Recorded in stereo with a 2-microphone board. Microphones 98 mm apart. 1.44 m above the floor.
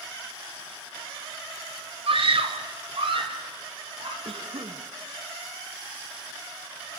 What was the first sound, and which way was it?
A scream, 65° right (ahead or behind).